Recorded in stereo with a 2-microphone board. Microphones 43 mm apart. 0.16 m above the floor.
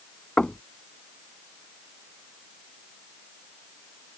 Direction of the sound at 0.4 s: 25° left (ahead or behind).